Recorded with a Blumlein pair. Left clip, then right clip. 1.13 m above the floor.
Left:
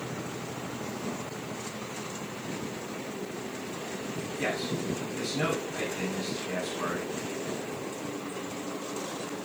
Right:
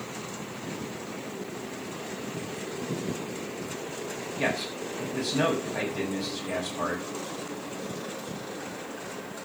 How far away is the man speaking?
About 7.5 m.